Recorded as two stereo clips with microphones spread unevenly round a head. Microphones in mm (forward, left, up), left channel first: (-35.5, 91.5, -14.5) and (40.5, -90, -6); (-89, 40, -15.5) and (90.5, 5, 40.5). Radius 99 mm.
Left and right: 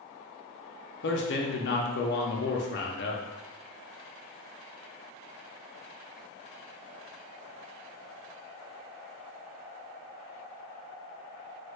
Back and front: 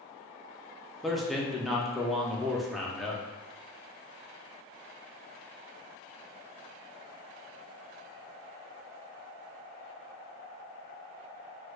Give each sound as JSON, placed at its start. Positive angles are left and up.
{"t": 1.0, "sound": "a man speaking", "azimuth_deg": 90, "distance_m": 0.6}